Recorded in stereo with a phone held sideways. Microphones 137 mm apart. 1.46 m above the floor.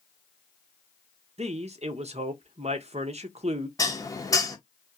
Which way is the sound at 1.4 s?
55° right (ahead or behind).